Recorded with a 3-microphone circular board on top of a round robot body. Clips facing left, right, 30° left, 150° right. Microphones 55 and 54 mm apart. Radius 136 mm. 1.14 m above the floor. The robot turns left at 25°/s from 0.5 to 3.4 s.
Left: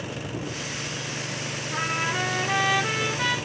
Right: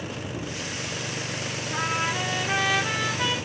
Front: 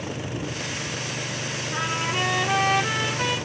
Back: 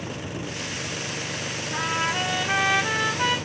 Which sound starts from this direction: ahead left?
A trumpet, at 1.7 s.